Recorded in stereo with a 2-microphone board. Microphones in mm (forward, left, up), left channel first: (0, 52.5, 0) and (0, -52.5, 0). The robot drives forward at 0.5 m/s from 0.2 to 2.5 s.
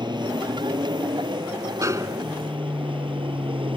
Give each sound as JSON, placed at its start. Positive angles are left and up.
{"t": 0.0, "sound": "an aircraft", "side_deg": -45}
{"t": 1.8, "sound": "a snare drum", "side_deg": -30}